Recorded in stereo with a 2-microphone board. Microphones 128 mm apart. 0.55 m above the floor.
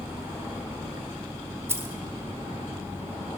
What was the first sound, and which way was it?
Keys jangling, 20° right (ahead or behind).